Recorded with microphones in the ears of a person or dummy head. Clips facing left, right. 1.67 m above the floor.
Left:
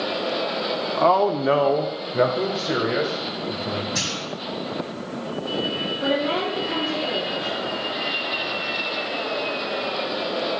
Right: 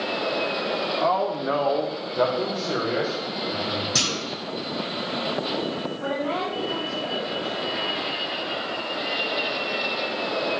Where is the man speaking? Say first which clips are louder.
Left 7 dB; 55° left (ahead or behind), 0.9 m; by 3.9 s 5° left (ahead or behind), 3 m.